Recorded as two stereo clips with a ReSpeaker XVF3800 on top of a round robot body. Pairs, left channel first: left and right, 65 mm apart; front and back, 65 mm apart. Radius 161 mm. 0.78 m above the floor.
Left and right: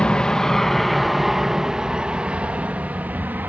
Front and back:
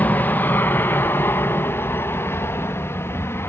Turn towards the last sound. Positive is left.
turn(degrees=-35)